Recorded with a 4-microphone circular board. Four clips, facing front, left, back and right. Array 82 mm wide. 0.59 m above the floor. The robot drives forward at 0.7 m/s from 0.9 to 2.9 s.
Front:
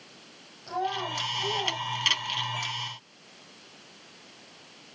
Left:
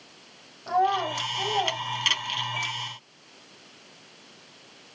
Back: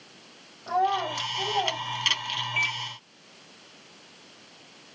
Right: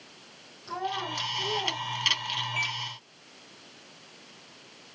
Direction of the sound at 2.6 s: 165° right.